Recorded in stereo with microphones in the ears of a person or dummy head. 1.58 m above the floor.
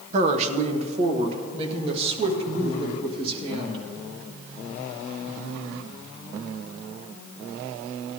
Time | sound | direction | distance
0.1 | a woman speaking | 40° right (ahead or behind) | 0.9 m